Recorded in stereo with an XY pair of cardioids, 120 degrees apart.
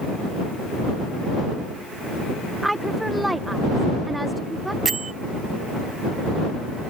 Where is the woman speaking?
10° right.